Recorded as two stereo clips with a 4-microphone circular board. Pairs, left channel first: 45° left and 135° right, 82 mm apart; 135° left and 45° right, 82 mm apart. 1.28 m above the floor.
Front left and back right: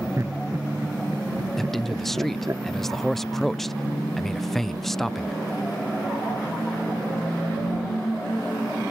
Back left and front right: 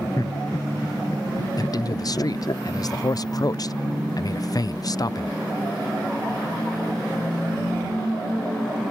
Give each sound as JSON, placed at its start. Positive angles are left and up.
{"t": 0.2, "sound": "laughter", "azimuth_deg": 175}
{"t": 1.6, "sound": "a man speaking", "azimuth_deg": 130}